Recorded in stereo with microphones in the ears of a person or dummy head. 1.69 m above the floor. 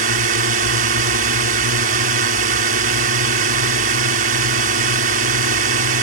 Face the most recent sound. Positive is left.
turn(degrees=-50)  # may be behind; listen again after turning